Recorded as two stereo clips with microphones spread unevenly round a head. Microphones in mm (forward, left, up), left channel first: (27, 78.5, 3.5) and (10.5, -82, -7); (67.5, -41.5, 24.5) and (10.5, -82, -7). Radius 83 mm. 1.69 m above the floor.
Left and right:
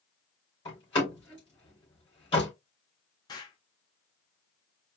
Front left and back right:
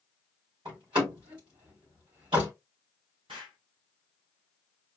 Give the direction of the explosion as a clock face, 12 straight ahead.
7 o'clock.